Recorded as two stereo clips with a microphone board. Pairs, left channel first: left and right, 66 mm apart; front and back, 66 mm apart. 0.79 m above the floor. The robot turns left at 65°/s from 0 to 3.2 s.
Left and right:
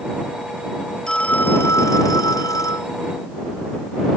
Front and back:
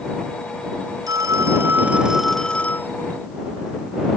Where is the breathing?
No breathing in this recording.